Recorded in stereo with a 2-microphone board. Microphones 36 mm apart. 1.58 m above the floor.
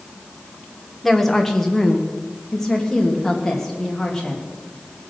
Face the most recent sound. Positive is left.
turn(degrees=15)  # may be behind; listen again after turning